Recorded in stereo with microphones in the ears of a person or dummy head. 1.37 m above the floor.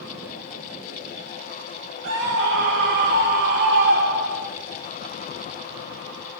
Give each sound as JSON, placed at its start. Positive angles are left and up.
{"t": 2.0, "sound": "a scream", "side_deg": -65, "distance_m": 3.5}